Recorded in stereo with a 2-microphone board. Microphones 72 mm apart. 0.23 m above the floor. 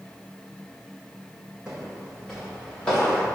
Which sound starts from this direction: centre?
Footsteps, at 1.7 s.